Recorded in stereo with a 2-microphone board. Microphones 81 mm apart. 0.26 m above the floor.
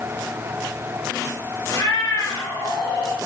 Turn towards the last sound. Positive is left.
turn(degrees=80)